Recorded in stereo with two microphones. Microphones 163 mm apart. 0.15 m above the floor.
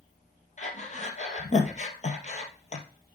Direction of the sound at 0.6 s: 45° left (ahead or behind).